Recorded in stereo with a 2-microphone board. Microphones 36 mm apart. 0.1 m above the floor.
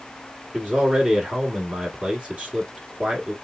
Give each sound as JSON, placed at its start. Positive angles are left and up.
{"t": 0.5, "sound": "a man speaking", "side_deg": -25, "distance_m": 1.2}